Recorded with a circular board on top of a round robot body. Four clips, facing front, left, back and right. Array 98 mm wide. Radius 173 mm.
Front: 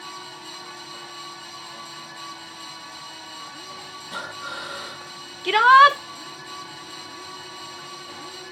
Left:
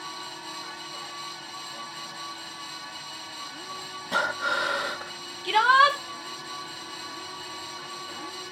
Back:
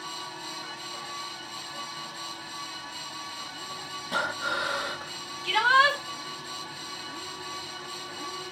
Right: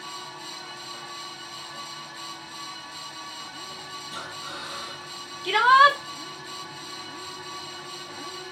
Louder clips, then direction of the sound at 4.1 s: Left 14 dB, back 5 dB; 110° left.